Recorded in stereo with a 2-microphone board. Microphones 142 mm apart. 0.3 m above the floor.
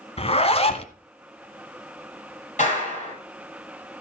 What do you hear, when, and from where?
0.2 s a zipper: 45° left (ahead or behind), 1.0 m
2.6 s a clap: 60° left (ahead or behind), 8 m